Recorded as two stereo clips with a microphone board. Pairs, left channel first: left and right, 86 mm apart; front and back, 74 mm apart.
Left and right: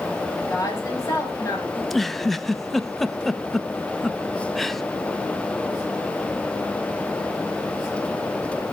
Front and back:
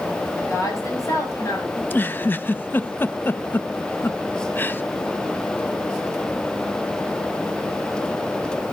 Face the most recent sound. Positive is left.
turn(degrees=5)